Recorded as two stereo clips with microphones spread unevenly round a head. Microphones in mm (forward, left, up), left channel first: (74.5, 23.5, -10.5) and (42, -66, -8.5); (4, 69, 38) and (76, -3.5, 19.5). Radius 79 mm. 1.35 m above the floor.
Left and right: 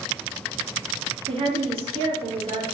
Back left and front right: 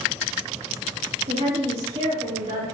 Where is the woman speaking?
85° right, 2.5 m.